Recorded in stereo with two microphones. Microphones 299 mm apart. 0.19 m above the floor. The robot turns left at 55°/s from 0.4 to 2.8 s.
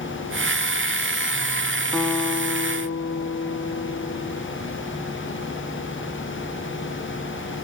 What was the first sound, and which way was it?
A guitar, straight behind.